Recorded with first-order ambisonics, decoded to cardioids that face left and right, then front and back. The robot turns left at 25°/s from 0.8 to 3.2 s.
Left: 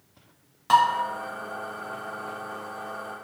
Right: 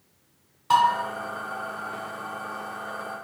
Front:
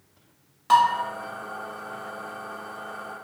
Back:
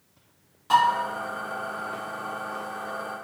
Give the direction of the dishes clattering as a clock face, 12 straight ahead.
10 o'clock.